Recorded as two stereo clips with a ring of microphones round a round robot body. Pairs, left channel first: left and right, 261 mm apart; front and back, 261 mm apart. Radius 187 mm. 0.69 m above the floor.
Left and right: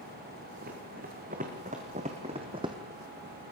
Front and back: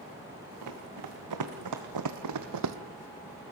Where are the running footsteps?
160° right, 2.5 m; by 2.8 s 165° right, 1.2 m.